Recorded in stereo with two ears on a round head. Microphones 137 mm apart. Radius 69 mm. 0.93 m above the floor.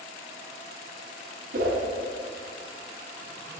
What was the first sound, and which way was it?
A whoosh, 65° right (ahead or behind).